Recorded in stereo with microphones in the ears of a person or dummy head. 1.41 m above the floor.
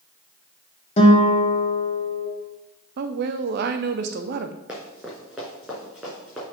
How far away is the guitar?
About 1.6 m.